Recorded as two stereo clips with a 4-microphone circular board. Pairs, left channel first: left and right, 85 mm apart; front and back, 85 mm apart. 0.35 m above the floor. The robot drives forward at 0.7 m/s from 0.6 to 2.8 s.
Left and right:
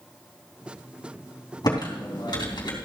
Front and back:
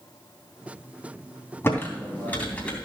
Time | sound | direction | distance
1.6 | typing on a keyboard | 60° left | 3.5 m